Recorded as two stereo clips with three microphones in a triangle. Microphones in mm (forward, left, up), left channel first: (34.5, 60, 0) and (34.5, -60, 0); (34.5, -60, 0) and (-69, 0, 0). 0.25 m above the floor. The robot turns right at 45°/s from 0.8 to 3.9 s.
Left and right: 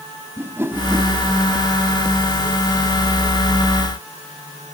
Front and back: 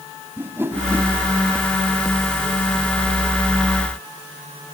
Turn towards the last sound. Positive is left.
turn(degrees=-10)